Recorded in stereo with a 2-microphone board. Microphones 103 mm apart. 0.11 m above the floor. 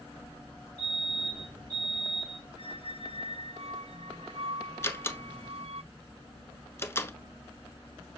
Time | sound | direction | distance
0.8 | a fire alarm | 10° left (ahead or behind) | 4 m
2.6 | a squeak | 70° right (ahead or behind) | 0.7 m
4.8 | a door slam | 20° left (ahead or behind) | 1.2 m